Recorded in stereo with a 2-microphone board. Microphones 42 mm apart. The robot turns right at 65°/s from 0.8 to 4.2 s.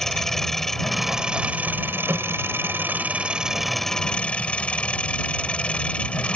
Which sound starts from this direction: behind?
An engine running, at 0.0 s.